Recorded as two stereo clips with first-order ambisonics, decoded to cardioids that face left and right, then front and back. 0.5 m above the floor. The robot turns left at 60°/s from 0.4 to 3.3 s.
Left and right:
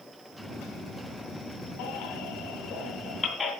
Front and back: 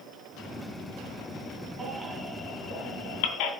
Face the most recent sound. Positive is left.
turn(degrees=15)